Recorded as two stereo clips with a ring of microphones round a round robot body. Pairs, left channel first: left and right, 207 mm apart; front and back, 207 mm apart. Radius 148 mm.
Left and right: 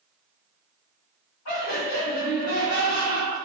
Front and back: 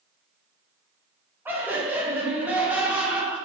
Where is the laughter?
100° left, 5.5 m.